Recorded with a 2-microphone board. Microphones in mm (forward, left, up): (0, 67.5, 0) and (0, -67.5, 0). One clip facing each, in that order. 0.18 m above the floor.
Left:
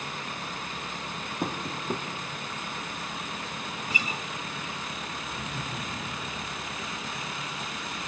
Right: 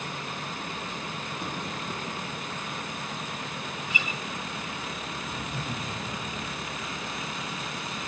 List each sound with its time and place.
1.4 s tapping: 50° left (ahead or behind), 3 m
3.9 s a guitar: 40° left (ahead or behind), 0.8 m
5.3 s laughter: 65° right (ahead or behind), 8 m